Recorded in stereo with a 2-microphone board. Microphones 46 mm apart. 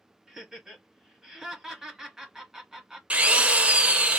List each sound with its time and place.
0.3 s laughter: 10° right (ahead or behind), 1.5 m
3.1 s a drill: 30° right (ahead or behind), 0.6 m